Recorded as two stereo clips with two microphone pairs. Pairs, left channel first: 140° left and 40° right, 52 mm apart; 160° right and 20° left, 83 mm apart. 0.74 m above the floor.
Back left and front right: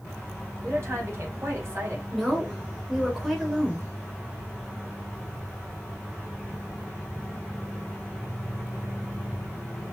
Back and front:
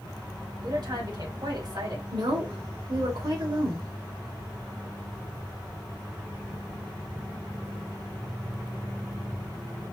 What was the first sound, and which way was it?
A woman speaking, 10° right.